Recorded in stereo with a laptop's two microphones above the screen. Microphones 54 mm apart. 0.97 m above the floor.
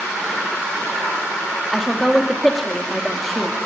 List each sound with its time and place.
1.7 s a woman speaking: centre (ahead or behind), 2 m